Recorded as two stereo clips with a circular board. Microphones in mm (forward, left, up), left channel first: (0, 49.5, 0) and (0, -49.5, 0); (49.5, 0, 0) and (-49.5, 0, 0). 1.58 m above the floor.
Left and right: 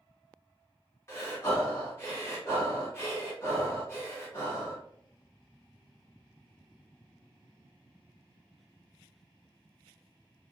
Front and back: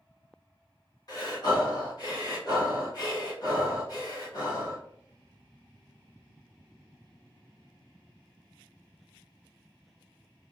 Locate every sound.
1.1 s breathing: 30° left, 1.1 m